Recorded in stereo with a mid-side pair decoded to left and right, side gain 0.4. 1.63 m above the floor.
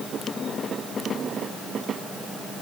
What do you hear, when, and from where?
Only background noise.